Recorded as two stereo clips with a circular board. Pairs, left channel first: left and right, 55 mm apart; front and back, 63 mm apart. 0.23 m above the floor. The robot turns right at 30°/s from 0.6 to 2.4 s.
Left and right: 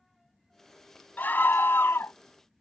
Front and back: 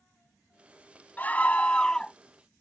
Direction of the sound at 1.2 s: 50° left.